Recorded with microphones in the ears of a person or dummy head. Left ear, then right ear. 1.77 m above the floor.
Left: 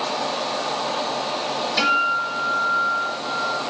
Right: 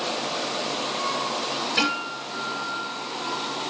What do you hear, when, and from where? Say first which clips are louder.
1.8 s a guitar: left 9 dB; centre (ahead or behind), 7 m